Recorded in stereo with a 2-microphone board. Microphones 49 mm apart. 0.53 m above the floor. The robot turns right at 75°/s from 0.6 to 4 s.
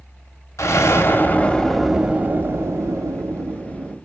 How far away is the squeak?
I don't hear a squeak.